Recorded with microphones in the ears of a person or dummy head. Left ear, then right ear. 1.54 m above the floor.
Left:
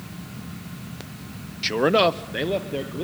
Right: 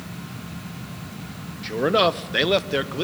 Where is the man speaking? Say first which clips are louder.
Left 1 dB; 35° left (ahead or behind), 0.8 m; by 3.0 s 60° right (ahead or behind), 1.4 m.